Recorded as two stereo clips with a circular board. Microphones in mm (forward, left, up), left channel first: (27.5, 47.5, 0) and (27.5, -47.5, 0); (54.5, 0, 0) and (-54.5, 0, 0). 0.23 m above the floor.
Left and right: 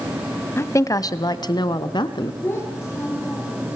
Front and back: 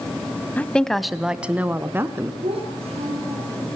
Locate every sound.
0.6 s a woman speaking: 60° left, 1.0 m; by 2.3 s 115° left, 1.9 m
2.4 s a child speaking: 150° left, 7.5 m